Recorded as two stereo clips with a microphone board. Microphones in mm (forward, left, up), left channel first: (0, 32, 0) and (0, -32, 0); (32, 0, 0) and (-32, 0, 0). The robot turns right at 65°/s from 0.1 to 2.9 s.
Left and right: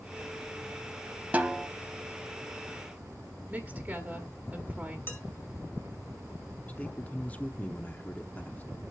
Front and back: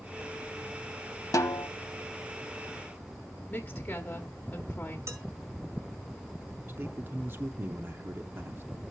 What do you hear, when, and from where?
1.3 s a snare drum: 25° right, 0.8 m; by 1.7 s straight ahead, 0.8 m
3.5 s a woman speaking: 40° right, 1.3 m
5.1 s dishes clattering: 145° left, 1.8 m
6.7 s a man speaking: 145° left, 0.8 m